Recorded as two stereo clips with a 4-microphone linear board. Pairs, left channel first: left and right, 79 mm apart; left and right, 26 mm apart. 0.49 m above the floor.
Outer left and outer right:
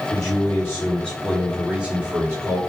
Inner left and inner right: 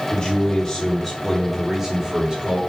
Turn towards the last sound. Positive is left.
turn(degrees=-30)  # may be behind; listen again after turning